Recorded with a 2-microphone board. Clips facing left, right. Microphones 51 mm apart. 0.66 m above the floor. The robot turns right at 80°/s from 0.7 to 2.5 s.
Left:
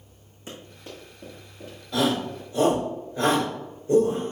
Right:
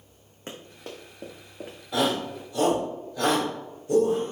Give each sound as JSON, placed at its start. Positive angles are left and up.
{"t": 0.5, "sound": "running footsteps", "side_deg": -50, "distance_m": 2.5}
{"t": 1.9, "sound": "a shout", "side_deg": -15, "distance_m": 3.5}